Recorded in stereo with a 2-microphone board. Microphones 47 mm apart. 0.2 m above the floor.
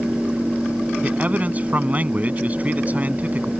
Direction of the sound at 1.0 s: 35° right (ahead or behind).